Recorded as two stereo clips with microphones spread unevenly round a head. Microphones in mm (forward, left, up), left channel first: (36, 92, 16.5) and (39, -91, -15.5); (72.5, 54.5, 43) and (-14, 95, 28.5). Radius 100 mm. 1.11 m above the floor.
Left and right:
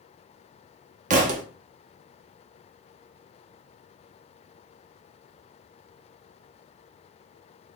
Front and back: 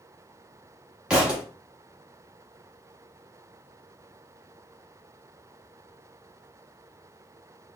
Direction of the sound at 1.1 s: 115° right.